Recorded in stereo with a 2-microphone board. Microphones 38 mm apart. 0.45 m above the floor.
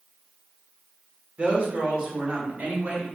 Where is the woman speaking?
35° right (ahead or behind), 1.5 m; by 3.0 s 45° right (ahead or behind), 1.9 m.